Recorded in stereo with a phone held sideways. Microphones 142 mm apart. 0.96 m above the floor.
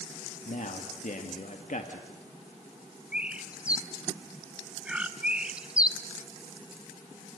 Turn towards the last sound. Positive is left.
turn(degrees=-5)  # may be behind; listen again after turning